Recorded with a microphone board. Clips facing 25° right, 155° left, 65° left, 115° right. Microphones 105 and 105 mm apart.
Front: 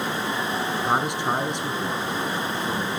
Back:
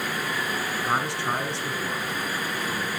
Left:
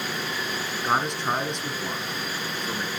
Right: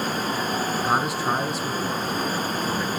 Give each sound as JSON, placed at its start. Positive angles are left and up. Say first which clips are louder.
{"t": 0.8, "sound": "a man speaking", "louder": "front 3 dB, left 1 dB", "azimuth_deg": -40, "distance_m": 1.2}